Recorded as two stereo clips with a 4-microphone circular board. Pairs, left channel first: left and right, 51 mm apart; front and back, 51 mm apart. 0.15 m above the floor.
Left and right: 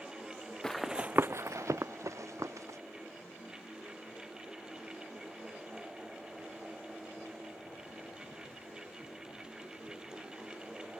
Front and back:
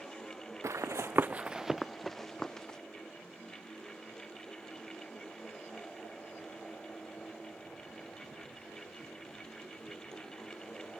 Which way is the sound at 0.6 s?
170° left.